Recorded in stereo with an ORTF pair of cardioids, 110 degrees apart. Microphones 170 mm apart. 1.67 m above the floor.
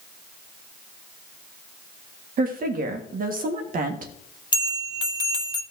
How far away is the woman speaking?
About 1.5 m.